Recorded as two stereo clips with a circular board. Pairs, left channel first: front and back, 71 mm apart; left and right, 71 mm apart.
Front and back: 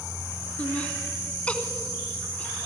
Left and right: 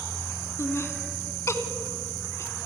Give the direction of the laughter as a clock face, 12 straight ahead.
10 o'clock.